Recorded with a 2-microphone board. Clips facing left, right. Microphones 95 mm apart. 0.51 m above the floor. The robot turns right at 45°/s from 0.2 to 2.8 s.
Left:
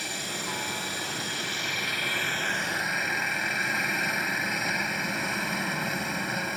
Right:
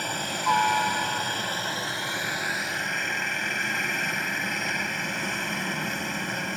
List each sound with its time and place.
0.0 s a helicopter: 115° right; by 6.6 s 5° left